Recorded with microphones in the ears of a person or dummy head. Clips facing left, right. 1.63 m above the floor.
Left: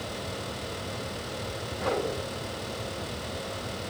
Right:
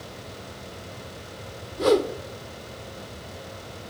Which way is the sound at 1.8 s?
50° right (ahead or behind).